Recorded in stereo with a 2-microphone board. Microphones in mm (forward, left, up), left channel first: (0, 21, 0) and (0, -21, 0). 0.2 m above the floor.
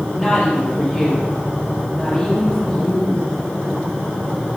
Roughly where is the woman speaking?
Centre.